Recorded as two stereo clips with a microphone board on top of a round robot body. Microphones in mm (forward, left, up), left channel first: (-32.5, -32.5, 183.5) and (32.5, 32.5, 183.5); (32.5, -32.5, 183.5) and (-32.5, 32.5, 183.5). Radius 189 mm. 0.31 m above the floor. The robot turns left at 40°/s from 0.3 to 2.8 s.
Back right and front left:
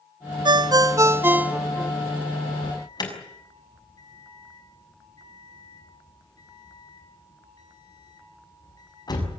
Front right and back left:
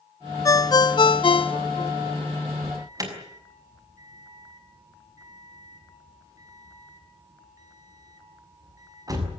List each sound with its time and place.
0.5 s a ringtone: 10° left, 0.6 m; by 1.9 s 50° right, 0.6 m
2.6 s an alarm: 170° right, 6.5 m; by 9.3 s 175° right, 6.5 m